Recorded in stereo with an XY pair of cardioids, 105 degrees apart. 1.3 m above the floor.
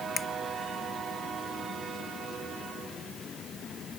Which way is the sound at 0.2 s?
30° left.